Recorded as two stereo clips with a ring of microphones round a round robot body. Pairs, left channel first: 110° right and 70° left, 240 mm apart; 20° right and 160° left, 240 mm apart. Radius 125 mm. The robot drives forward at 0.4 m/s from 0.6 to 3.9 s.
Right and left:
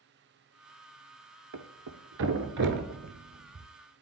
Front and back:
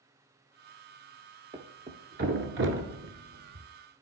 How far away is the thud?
About 0.9 m.